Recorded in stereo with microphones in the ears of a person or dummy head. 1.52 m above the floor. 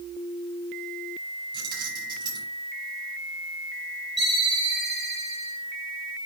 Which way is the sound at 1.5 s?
30° right (ahead or behind).